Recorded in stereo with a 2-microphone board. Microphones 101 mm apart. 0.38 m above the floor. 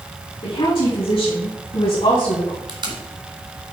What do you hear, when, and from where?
0.4 s a woman speaking: 65° left (ahead or behind), 4 m
2.7 s tape being pulled: 50° right (ahead or behind), 1.6 m